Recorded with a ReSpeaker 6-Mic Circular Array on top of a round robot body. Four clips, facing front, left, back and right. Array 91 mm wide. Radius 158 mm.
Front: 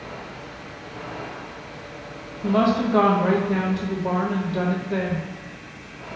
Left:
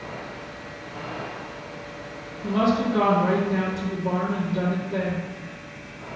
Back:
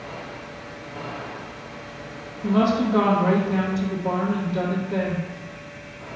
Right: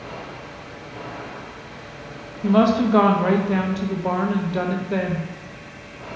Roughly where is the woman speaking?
Right.